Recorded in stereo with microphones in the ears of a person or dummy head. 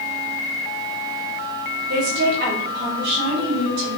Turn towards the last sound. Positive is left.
turn(degrees=-65)  # may be behind; listen again after turning